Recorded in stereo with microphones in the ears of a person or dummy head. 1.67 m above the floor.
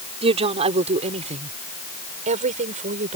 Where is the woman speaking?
35° right (ahead or behind); by 3.2 s 45° right (ahead or behind).